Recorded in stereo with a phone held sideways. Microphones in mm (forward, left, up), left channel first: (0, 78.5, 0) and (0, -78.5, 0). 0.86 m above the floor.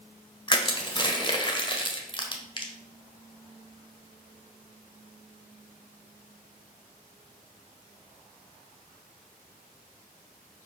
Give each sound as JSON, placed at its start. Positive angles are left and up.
{"t": 0.5, "sound": "crushing", "side_deg": 30, "distance_m": 1.2}